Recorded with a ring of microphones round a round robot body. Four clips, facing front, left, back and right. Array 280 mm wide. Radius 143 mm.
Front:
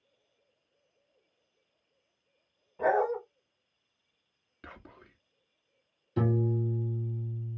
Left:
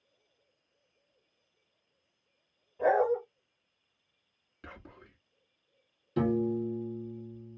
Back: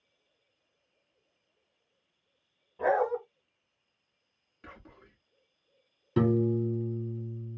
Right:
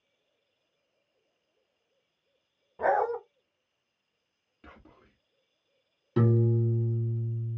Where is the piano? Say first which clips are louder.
Right 2 dB, back 4 dB; 145° right, 1.8 m.